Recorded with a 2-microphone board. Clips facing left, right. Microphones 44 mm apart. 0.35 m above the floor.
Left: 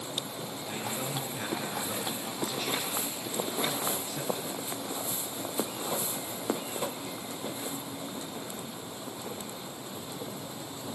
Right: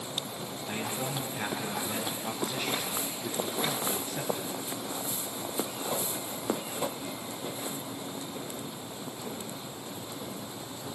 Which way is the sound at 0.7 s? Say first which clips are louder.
Right 2 dB; 15° right (ahead or behind).